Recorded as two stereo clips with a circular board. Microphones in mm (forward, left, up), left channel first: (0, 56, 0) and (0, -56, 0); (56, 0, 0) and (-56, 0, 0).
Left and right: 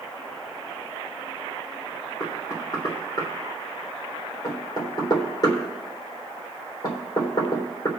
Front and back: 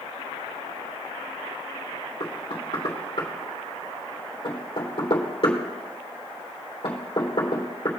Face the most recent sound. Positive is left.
turn(degrees=40)